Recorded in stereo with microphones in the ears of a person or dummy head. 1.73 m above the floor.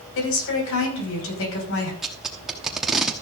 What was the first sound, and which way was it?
A woman speaking, 75° left (ahead or behind).